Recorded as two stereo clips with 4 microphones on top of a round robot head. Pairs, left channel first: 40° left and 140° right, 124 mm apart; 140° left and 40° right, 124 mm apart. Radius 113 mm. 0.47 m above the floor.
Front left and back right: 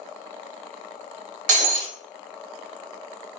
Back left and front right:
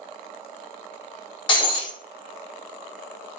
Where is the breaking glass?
165° right, 0.8 m.